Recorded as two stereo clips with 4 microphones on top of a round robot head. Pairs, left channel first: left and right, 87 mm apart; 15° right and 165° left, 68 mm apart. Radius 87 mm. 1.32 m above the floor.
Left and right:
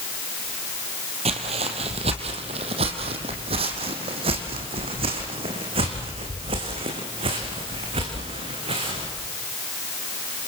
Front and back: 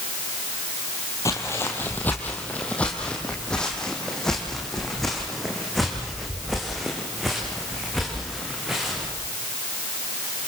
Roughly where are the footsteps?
Right.